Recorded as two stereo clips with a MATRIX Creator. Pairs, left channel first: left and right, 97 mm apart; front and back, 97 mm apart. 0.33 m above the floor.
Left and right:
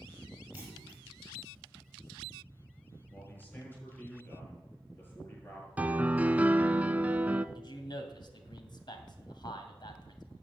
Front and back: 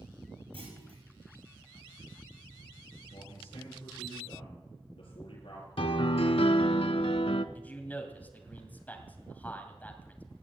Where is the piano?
15° right, 0.6 m.